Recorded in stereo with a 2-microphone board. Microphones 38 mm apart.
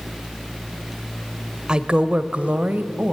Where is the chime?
I don't hear a chime.